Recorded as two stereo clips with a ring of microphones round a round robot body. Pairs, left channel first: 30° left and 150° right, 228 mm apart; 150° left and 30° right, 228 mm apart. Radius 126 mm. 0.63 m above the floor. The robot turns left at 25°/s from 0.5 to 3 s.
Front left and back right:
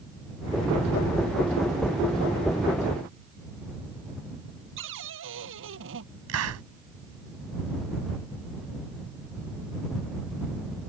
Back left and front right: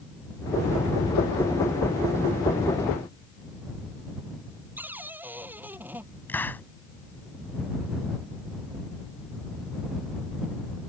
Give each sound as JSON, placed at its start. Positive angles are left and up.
{"t": 4.8, "sound": "a cupboard door", "azimuth_deg": -110}
{"t": 6.3, "sound": "a hiss", "azimuth_deg": -130}